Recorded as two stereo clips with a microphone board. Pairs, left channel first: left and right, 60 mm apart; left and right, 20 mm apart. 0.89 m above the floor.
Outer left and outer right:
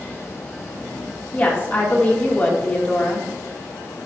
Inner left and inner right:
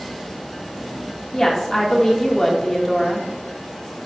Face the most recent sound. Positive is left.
turn(degrees=20)  # may be behind; listen again after turning